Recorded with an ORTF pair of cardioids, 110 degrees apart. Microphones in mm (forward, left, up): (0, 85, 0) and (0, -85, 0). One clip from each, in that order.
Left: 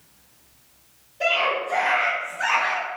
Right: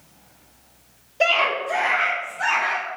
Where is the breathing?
No breathing in this recording.